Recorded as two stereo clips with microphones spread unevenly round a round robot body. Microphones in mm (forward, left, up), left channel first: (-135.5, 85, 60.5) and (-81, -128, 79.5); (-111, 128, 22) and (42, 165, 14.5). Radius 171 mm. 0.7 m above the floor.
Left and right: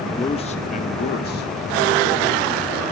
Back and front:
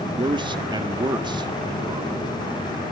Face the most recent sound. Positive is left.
turn(degrees=75)